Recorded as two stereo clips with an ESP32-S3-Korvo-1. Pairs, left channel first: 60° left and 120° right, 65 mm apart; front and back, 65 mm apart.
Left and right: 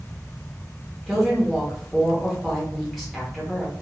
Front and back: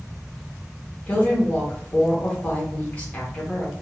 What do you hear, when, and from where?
1.1 s a woman speaking: 25° right, 1.0 m